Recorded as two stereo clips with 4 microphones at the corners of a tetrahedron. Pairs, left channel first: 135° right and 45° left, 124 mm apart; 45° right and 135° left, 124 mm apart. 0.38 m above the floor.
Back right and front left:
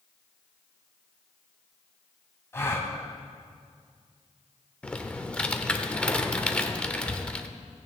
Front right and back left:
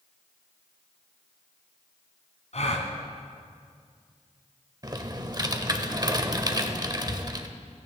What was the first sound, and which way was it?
A gasp, 65° right.